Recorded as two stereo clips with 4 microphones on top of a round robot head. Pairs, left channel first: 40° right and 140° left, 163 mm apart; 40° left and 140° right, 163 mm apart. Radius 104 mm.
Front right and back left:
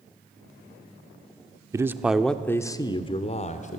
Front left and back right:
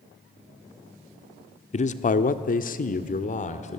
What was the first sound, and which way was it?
A man speaking, 75° left.